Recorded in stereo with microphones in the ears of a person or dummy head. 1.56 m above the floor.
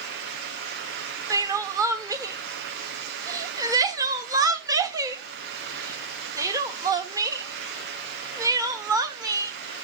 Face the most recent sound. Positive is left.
turn(degrees=-25)  # may be behind; listen again after turning